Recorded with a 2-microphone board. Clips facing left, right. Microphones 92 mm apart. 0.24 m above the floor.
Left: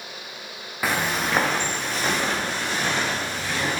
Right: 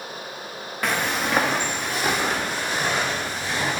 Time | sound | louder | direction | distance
0.8 | footsteps | even | 5° left (ahead or behind) | 1.1 m